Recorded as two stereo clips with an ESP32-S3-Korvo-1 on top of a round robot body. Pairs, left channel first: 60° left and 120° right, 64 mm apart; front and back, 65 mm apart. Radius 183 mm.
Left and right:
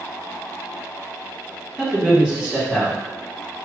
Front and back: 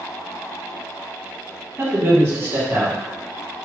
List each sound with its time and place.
1.8 s a man speaking: 175° left, 2.0 m